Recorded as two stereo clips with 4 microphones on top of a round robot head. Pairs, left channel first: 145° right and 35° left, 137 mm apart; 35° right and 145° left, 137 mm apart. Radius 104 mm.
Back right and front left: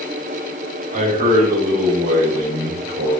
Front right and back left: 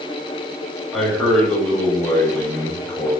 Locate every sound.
0.9 s a man speaking: 55° left, 5.5 m; by 3.1 s 35° left, 5.5 m